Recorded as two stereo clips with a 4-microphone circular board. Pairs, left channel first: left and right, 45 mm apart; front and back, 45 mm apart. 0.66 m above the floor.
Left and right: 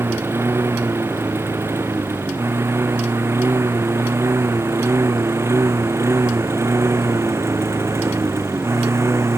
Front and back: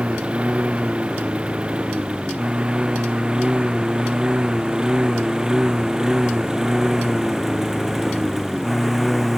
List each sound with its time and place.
0.0 s a lawn mower: 115° right; by 9.4 s 90° right